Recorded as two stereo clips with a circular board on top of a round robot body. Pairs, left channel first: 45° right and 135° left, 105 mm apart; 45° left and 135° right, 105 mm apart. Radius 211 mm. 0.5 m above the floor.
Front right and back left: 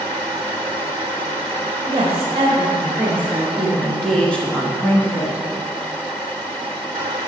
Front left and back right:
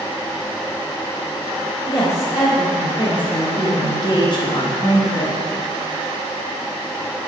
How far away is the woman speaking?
About 1.9 m.